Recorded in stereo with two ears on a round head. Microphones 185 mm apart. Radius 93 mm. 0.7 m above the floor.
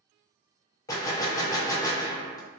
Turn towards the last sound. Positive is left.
turn(degrees=15)  # may be behind; listen again after turning